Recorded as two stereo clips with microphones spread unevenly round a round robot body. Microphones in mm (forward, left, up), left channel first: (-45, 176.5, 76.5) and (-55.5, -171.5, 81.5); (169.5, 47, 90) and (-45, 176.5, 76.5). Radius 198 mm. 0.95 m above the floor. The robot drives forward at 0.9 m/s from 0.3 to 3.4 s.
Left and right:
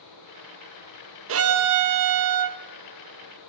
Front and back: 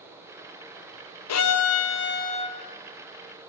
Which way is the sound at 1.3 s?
40° right.